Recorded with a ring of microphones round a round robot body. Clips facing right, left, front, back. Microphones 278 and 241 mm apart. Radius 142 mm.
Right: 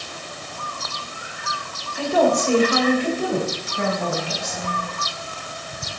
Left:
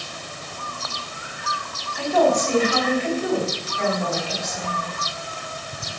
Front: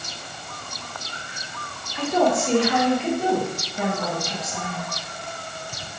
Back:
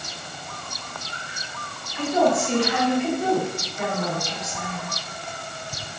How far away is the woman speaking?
About 3 m.